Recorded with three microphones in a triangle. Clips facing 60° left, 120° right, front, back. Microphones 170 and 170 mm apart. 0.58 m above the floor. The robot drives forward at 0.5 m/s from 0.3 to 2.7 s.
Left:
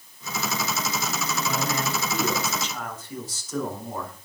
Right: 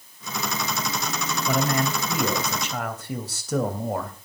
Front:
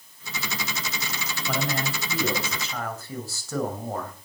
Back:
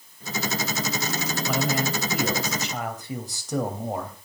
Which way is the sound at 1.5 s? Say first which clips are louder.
Right 6 dB, back 2 dB; 100° right.